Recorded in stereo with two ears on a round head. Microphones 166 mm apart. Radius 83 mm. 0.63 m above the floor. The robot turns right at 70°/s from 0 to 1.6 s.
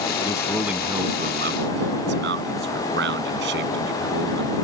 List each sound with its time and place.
0.2 s a man speaking: 150° left; by 4.5 s 110° right